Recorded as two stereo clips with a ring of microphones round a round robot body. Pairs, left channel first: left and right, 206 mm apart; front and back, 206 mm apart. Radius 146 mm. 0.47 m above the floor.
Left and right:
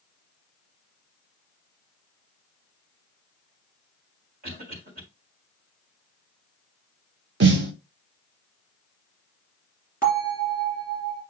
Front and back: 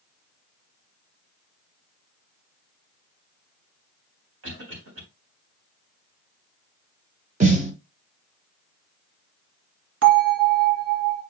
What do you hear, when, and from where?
4.4 s a cough: 150° right, 3.5 m
7.4 s a snare drum: 120° right, 0.8 m
10.0 s a bell: 170° right, 2.5 m